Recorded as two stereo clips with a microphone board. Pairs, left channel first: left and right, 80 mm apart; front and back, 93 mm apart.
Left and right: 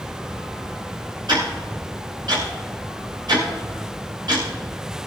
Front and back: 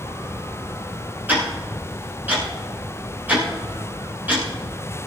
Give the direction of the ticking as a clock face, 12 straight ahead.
4 o'clock.